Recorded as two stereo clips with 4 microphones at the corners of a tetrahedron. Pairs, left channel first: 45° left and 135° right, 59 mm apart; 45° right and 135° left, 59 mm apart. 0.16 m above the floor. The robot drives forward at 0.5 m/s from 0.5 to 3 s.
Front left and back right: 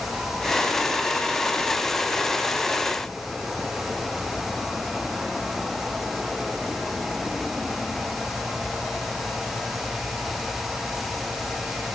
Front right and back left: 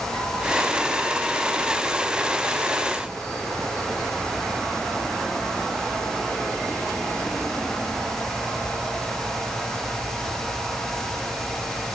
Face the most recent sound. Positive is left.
No sound to turn to.